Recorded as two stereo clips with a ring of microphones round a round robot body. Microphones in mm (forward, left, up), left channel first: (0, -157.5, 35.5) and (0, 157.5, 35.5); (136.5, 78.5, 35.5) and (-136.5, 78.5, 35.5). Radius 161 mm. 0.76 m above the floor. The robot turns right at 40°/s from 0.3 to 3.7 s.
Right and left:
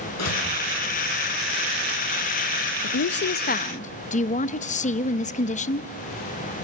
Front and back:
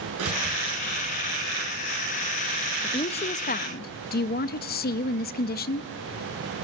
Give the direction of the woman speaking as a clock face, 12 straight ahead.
2 o'clock.